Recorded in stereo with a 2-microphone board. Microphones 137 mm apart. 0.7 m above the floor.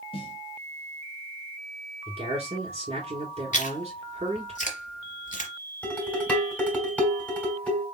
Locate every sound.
0.1 s a snare drum: 40° left (ahead or behind), 1.3 m
2.1 s a man speaking: 50° right (ahead or behind), 2.5 m
3.5 s chewing: 70° left (ahead or behind), 1.3 m
5.8 s dishes clattering: 10° left (ahead or behind), 2.5 m